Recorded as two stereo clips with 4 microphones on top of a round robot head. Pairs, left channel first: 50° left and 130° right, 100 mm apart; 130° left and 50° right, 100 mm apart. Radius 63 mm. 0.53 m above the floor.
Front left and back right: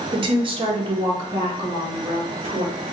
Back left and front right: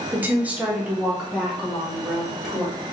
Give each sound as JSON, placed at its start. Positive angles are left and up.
{"t": 0.1, "sound": "a woman speaking", "azimuth_deg": -120, "distance_m": 0.9}